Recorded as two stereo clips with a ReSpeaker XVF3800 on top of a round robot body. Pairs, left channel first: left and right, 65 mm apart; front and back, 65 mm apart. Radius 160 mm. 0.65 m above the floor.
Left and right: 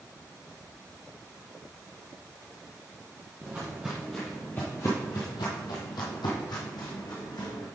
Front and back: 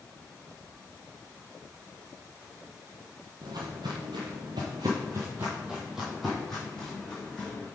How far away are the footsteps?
About 1.1 m.